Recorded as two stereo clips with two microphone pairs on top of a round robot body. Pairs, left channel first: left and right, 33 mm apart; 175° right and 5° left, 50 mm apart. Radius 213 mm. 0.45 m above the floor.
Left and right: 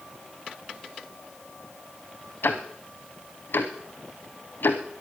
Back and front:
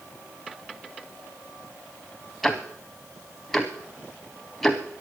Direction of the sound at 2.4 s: 95° left.